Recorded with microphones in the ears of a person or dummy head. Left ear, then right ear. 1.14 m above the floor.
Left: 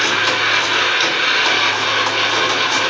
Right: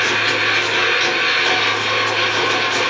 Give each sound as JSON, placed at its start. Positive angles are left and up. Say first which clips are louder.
{"t": 0.0, "sound": "a machine running", "louder": "left 1 dB", "side_deg": 40, "distance_m": 1.5}